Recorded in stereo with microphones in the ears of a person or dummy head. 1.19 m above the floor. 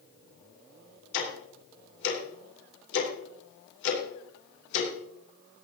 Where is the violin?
No violin in this recording.